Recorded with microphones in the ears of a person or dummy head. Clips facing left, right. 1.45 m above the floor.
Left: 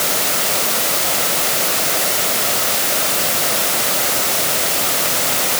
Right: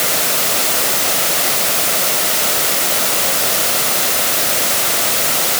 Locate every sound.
Only background noise.